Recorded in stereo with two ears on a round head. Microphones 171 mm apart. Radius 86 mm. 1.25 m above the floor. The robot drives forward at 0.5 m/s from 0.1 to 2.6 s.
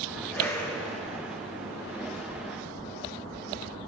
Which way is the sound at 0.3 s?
10° left (ahead or behind).